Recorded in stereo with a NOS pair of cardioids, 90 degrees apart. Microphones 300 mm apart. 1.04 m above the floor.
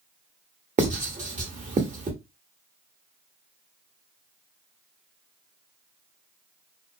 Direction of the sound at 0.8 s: 25° right.